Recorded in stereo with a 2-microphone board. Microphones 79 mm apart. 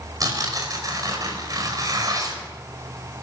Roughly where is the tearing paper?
Right.